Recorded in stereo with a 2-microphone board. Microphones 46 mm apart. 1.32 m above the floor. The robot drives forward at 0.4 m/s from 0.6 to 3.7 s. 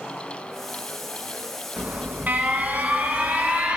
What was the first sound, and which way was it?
An alarm, 45° right (ahead or behind).